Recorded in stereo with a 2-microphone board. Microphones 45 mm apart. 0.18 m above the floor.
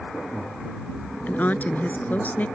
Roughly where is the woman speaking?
Left.